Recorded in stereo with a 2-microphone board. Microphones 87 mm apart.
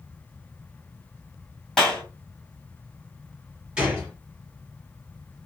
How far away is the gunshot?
About 2.0 m.